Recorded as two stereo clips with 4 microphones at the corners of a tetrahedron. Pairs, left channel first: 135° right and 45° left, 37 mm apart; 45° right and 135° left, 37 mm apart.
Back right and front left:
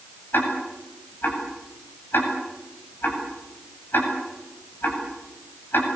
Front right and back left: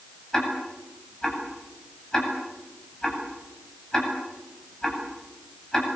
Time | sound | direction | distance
0.3 | ticking | 120° right | 8.5 m